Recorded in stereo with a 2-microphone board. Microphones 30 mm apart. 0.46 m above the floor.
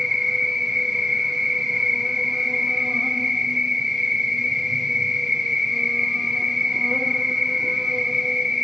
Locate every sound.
0.0 s an insect: 20° right (ahead or behind), 1.1 m